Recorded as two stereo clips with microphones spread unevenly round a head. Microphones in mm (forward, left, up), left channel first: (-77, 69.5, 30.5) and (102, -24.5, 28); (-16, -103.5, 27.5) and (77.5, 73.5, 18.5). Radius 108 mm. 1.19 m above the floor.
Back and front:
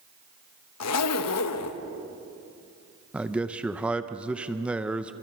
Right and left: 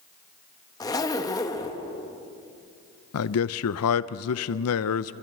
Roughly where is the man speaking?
Right.